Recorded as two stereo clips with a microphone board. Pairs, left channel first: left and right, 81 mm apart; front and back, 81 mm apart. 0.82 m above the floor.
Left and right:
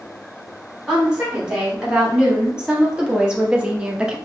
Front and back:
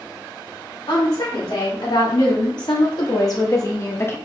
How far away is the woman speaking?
About 2.5 m.